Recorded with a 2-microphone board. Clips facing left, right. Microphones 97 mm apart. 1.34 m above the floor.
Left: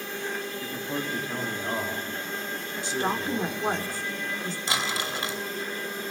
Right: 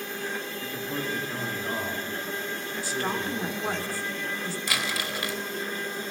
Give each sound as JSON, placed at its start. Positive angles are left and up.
{"t": 0.6, "sound": "a man speaking", "side_deg": 15, "distance_m": 2.5}
{"t": 2.8, "sound": "a woman speaking", "side_deg": 20, "distance_m": 3.5}
{"t": 4.7, "sound": "crumpling", "side_deg": 25, "distance_m": 2.5}